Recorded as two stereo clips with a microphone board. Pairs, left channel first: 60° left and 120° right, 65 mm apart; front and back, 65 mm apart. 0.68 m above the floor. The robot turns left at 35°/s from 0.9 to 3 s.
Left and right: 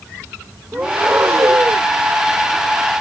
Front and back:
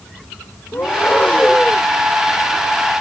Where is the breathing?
55° right; by 1.9 s 90° right.